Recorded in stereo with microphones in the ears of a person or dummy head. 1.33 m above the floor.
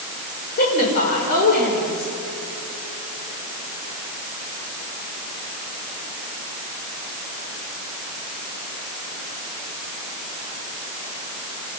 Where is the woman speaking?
50° left (ahead or behind), 5.5 m.